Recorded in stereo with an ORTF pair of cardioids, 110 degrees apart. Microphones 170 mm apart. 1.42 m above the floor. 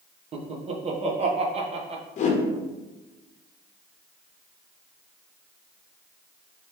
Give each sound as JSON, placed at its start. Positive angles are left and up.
{"t": 0.3, "sound": "laughter", "azimuth_deg": -35, "distance_m": 1.0}
{"t": 2.2, "sound": "a whoosh", "azimuth_deg": 50, "distance_m": 0.9}